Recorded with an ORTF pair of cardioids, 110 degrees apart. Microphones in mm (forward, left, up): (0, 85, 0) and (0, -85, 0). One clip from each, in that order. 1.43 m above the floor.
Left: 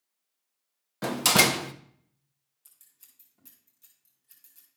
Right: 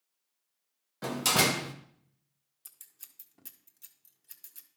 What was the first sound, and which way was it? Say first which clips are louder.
A door slam: left 5 dB; 30° left.